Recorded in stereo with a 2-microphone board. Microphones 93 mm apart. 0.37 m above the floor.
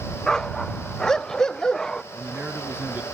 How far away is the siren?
I don't hear a siren.